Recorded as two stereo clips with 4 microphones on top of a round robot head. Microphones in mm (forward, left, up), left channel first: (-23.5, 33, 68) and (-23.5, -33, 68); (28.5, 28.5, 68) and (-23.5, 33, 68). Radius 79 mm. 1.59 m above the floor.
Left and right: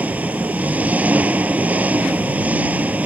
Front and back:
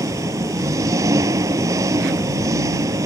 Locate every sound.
0.0 s an engine running: 160° right